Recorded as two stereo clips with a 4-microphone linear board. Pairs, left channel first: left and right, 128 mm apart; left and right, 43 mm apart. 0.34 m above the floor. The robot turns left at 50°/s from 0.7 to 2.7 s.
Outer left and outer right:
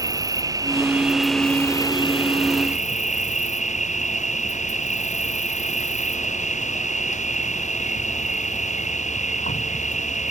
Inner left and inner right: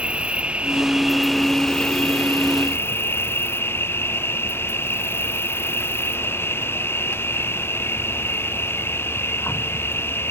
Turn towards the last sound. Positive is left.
turn(degrees=110)